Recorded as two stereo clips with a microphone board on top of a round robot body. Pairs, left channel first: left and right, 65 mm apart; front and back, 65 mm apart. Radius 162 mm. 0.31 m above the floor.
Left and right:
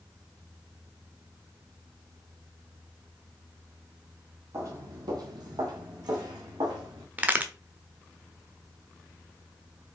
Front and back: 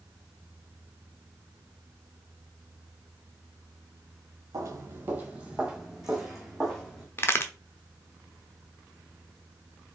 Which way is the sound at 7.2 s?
35° right.